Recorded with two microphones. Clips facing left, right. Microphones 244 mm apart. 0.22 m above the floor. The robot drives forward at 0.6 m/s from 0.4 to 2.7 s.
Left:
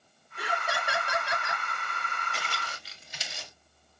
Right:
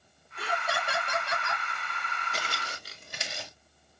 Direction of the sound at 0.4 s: 10° left (ahead or behind).